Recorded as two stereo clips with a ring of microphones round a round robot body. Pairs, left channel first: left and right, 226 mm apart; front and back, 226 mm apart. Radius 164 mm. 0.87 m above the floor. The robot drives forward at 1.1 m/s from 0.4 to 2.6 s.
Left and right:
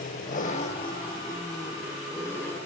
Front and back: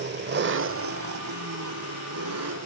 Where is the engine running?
150° left, 0.9 m; by 2.7 s 175° left, 3 m.